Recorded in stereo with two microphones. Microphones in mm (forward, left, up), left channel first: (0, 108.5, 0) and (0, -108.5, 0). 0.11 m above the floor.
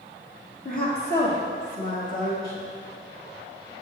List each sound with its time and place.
0.7 s a woman speaking: 45° left (ahead or behind), 1.7 m; by 2.7 s 75° left (ahead or behind), 4 m